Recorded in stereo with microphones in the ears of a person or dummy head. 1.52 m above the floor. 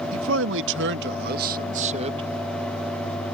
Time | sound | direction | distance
0.1 | a man speaking | 75° right (ahead or behind) | ?